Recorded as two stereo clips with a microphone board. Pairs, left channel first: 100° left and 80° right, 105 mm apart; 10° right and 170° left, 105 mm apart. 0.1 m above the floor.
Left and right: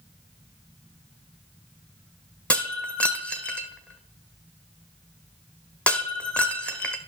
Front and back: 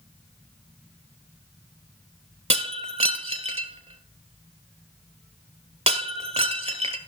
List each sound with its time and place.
2.5 s breaking glass: straight behind, 0.9 m